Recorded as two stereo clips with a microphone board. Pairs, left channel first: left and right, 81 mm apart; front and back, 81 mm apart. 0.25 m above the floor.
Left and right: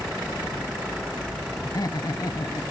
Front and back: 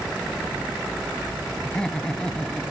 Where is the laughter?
75° left, 2.0 m.